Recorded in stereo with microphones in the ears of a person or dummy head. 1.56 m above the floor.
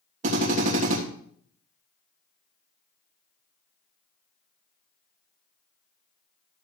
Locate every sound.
0.2 s a drill: 45° right (ahead or behind), 2.5 m